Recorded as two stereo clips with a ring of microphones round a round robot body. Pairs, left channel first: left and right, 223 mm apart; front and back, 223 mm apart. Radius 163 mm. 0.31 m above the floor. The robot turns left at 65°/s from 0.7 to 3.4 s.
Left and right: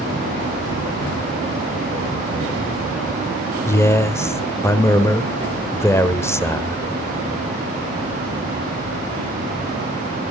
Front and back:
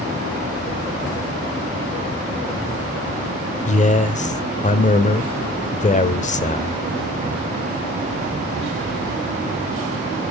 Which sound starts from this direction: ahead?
A man speaking, at 3.6 s.